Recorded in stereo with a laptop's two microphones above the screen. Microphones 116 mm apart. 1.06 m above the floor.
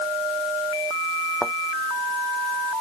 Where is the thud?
Centre (ahead or behind).